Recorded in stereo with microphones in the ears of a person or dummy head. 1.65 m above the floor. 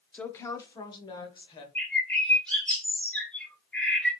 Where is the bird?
10° left (ahead or behind), 1.7 m.